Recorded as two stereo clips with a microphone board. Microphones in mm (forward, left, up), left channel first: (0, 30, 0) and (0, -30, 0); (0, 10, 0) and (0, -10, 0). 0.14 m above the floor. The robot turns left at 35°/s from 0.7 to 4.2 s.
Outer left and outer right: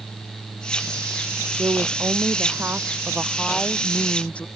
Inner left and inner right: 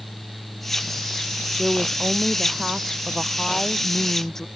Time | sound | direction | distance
1.6 | a woman speaking | 110° right | ?